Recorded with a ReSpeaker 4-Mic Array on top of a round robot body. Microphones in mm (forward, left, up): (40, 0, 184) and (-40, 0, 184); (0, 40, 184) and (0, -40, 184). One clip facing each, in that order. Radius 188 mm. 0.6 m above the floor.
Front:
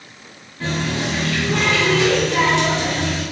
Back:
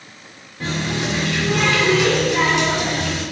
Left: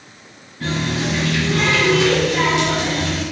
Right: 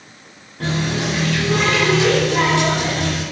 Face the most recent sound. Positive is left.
turn(degrees=-100)